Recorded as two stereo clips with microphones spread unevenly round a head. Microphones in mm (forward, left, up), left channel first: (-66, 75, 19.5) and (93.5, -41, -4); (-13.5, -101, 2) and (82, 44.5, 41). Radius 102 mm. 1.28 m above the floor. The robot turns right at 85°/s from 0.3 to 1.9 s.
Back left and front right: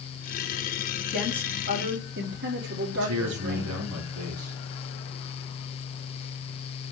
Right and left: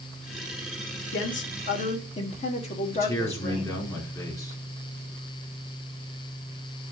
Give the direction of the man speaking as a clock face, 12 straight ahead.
2 o'clock.